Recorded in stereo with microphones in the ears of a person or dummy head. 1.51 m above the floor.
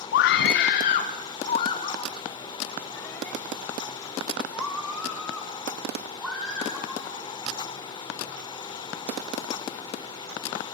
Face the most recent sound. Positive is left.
turn(degrees=5)  # may be behind; listen again after turning